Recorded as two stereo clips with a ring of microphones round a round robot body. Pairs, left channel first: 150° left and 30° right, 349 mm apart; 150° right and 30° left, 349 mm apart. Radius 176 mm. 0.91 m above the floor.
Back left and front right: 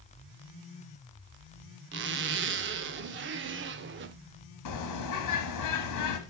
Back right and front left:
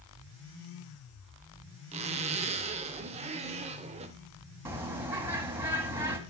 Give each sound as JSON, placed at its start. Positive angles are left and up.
{"t": 1.9, "sound": "a zipper", "azimuth_deg": -25, "distance_m": 0.6}
{"t": 4.7, "sound": "a bird", "azimuth_deg": 115, "distance_m": 1.3}